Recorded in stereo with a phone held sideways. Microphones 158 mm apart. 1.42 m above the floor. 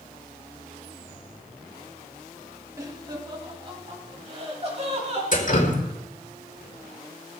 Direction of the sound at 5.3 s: 55° left (ahead or behind).